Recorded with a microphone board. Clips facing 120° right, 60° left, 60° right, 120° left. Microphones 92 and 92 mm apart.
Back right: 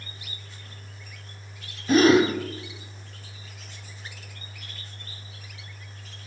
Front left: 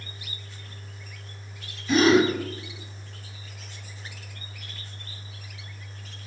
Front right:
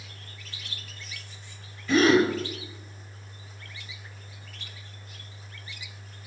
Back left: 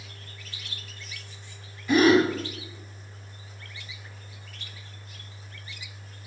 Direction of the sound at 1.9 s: 165° right.